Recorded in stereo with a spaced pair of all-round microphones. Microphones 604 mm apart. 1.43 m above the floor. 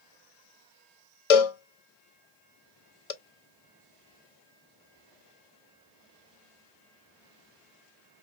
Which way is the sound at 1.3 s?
70° left (ahead or behind).